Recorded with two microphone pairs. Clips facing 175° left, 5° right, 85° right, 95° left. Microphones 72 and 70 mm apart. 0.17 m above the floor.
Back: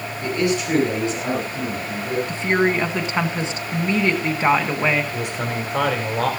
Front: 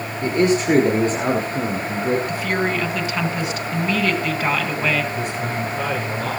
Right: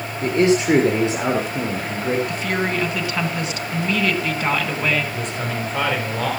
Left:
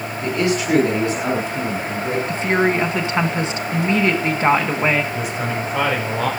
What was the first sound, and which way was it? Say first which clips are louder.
A man speaking: front 4 dB, right 4 dB; 50° right.